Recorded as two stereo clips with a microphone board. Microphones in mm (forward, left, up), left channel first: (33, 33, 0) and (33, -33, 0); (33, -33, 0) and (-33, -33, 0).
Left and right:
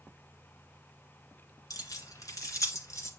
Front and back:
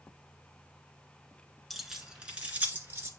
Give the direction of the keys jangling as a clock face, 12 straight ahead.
9 o'clock.